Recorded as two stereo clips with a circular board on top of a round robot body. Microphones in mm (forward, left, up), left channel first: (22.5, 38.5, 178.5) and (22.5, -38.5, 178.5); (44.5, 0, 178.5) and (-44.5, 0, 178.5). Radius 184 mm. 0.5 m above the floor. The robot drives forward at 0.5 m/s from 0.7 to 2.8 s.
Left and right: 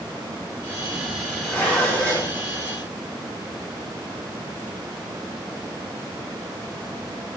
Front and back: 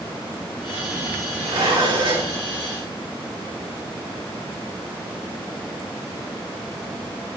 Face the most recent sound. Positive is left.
turn(degrees=160)